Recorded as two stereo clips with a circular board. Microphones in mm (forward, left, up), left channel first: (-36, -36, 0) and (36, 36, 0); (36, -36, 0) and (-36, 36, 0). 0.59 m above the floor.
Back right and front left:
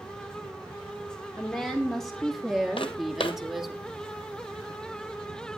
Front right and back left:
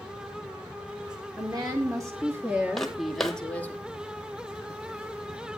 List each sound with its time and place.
1.4 s a woman speaking: 140° left, 1.5 m; by 3.8 s 35° right, 1.2 m
2.8 s footsteps: 130° right, 1.3 m